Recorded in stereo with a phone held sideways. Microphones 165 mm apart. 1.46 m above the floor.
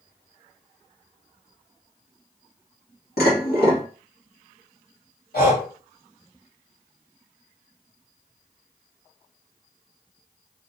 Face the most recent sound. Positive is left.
turn(degrees=80)